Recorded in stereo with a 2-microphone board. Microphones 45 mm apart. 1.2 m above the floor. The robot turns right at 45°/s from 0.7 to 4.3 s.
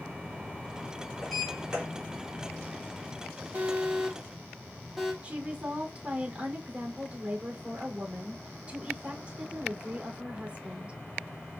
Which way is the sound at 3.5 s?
40° right (ahead or behind).